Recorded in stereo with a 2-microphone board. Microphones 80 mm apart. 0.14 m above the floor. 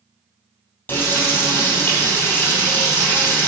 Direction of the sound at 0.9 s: 25° left (ahead or behind).